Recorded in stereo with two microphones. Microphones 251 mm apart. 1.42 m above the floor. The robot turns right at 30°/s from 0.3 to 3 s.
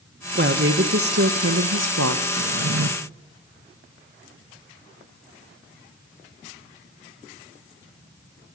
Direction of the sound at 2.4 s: 65° right (ahead or behind).